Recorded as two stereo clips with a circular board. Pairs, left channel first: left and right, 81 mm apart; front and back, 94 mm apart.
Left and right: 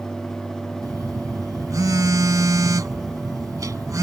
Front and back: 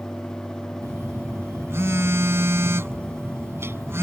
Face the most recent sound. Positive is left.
turn(degrees=-125)